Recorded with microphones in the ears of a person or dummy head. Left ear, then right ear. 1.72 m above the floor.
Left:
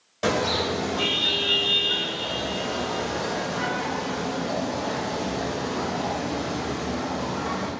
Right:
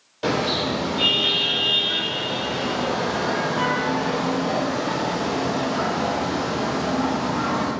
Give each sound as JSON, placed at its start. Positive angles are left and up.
{"t": 0.2, "sound": "a car horn", "side_deg": 25, "distance_m": 3.5}